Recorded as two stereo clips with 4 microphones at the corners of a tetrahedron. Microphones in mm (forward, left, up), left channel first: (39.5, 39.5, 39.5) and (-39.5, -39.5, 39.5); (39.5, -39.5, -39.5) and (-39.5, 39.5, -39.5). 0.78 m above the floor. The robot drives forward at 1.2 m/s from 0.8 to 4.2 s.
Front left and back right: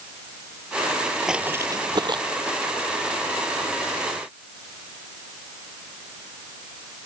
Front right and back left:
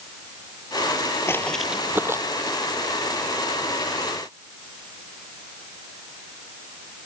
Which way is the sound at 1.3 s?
55° right.